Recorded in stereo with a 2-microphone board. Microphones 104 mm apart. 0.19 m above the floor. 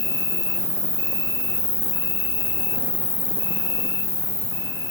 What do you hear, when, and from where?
0.0 s an insect: 45° right (ahead or behind), 1.2 m